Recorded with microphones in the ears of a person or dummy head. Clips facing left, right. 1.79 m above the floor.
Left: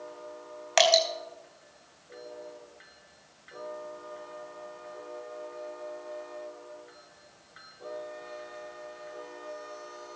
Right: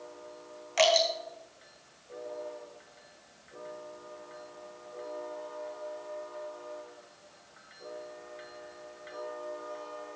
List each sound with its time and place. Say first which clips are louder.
0.8 s dripping: left 1 dB; 80° left, 4 m